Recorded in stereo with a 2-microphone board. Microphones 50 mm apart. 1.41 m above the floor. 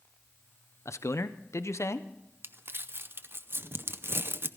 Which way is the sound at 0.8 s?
65° left (ahead or behind).